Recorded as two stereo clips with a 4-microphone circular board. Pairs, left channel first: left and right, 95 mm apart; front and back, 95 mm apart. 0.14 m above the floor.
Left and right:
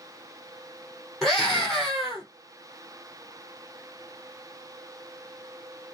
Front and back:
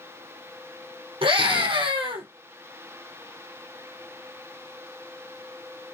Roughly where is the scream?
Behind.